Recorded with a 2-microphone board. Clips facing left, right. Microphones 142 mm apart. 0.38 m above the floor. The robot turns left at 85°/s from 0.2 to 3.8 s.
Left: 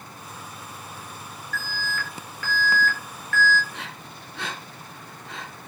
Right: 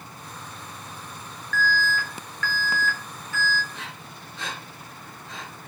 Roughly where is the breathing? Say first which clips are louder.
Left 1 dB; left.